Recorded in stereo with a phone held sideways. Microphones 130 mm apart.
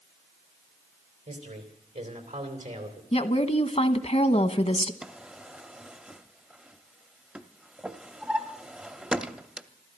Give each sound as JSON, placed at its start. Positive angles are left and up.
{"t": 1.3, "sound": "a man speaking", "side_deg": -85, "distance_m": 3.5}
{"t": 3.1, "sound": "a woman speaking", "side_deg": 55, "distance_m": 1.0}
{"t": 5.0, "sound": "a drawer", "side_deg": -10, "distance_m": 0.6}